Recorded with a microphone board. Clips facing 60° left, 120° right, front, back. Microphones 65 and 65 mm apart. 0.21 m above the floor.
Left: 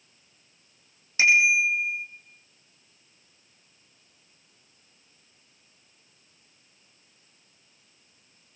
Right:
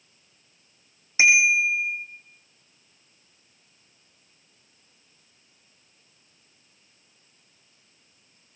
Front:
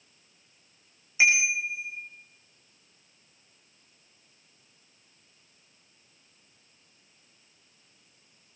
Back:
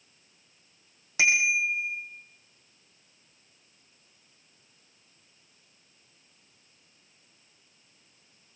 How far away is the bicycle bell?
About 7 m.